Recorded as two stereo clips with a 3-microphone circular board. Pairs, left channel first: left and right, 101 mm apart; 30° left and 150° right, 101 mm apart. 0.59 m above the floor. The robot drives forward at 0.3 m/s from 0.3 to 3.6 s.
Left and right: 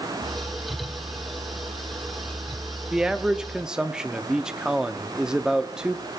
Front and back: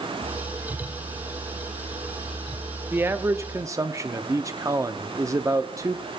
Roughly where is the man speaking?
Behind.